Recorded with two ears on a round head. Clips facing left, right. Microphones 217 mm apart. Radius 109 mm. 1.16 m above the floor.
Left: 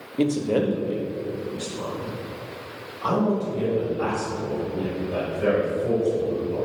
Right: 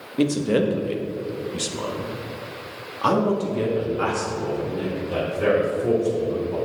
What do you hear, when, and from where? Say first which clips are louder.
0.2 s a man speaking: right 1 dB; 10° right (ahead or behind), 1.1 m; by 6.6 s 75° right (ahead or behind), 4 m